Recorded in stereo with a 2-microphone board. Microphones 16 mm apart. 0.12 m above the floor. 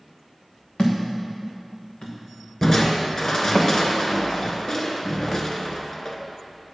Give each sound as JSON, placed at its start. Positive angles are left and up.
{"t": 0.8, "sound": "a thud", "side_deg": 85, "distance_m": 2.0}
{"t": 2.6, "sound": "crushing", "side_deg": 35, "distance_m": 1.0}